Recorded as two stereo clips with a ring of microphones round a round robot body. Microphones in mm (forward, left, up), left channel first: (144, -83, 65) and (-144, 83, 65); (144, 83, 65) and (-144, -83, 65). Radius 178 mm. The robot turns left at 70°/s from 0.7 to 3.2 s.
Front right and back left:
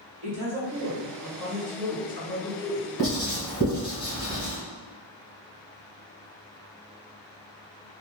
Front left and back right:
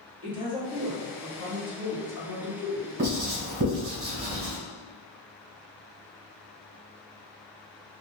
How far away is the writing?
About 1.7 m.